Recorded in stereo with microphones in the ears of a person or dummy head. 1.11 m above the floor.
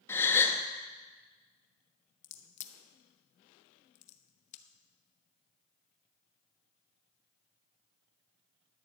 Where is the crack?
40° left (ahead or behind), 0.9 m.